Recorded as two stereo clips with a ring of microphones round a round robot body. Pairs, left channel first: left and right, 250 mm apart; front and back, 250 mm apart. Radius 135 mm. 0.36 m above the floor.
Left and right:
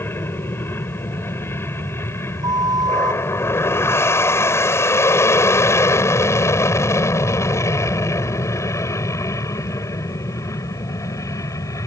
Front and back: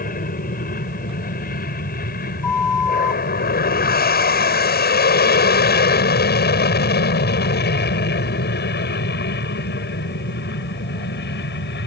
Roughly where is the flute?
Ahead.